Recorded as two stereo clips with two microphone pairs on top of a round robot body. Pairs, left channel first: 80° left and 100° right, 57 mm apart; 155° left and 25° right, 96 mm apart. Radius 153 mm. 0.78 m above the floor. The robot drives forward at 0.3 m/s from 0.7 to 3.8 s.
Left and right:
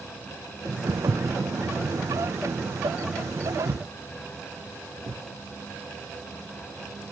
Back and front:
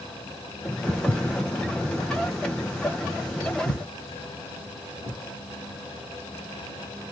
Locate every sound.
0.9 s footsteps: 90° right, 1.2 m; by 5.2 s 120° right, 4.5 m